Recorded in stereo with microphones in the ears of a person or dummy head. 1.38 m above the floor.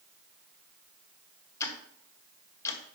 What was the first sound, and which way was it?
Ticking, 15° left (ahead or behind).